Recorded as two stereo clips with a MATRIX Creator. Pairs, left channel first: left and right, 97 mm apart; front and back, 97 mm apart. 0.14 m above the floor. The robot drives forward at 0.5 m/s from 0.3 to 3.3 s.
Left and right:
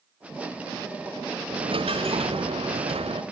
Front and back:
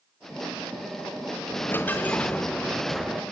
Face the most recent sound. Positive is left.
turn(degrees=-95)